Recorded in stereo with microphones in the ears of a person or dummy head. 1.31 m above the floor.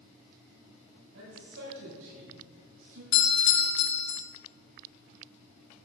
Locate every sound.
1.1 s a man speaking: 65° right (ahead or behind), 6 m; by 3.0 s 70° right (ahead or behind), 7.5 m
3.1 s a doorbell: 60° left (ahead or behind), 2.5 m